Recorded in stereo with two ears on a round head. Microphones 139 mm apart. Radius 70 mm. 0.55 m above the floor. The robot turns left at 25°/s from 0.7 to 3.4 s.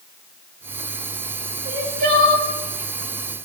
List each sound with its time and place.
1.6 s crying: 55° right (ahead or behind), 4 m; by 2.5 s 70° right (ahead or behind), 4 m